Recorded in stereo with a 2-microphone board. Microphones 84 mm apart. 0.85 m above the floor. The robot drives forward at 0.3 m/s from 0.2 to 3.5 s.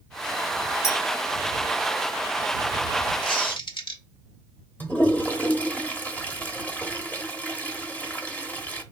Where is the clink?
35° left (ahead or behind), 1.5 m.